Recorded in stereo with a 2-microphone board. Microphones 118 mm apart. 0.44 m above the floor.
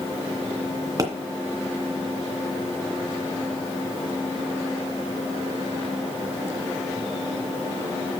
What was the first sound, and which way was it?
A pop, 30° right (ahead or behind).